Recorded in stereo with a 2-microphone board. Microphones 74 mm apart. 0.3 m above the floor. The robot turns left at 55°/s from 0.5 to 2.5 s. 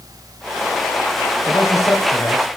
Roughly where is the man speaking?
Behind left.